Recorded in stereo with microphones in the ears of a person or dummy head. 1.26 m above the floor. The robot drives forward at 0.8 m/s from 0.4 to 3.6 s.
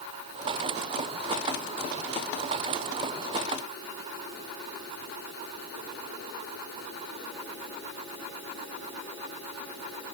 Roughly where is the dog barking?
I don't hear a dog barking.